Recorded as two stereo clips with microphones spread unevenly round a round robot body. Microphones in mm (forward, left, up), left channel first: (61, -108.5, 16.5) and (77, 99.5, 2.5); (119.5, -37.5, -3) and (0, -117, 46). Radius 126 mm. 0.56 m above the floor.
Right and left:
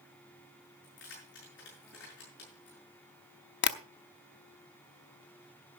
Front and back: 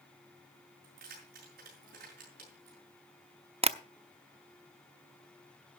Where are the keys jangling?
145° right, 6 m.